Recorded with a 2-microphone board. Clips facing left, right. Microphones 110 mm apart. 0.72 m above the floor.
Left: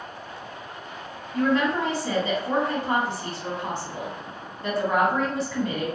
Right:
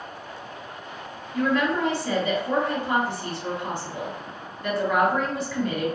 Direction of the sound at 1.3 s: 30° left (ahead or behind).